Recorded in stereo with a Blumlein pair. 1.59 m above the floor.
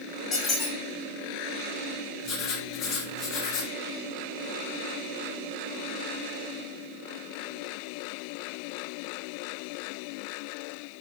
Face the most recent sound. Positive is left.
turn(degrees=35)